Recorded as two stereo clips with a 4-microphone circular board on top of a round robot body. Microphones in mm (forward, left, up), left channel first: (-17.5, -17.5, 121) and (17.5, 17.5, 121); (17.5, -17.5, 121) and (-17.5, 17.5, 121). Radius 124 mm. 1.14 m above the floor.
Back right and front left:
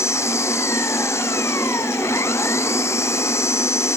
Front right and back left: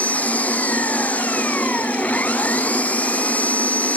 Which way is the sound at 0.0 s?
110° right.